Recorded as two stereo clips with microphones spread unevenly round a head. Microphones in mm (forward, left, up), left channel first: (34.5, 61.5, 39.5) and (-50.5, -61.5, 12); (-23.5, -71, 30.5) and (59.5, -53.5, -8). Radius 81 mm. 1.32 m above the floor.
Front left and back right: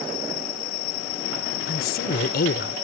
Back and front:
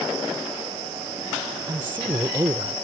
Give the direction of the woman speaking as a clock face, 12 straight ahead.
9 o'clock.